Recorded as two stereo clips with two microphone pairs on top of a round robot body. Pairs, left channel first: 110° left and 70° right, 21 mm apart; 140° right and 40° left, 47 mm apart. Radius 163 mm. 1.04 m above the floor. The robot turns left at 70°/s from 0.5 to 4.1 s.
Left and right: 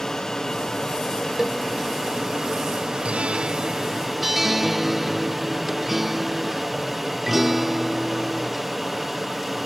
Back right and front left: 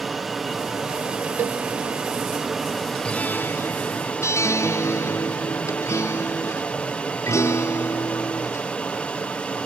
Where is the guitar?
70° right; by 8.7 s 145° right.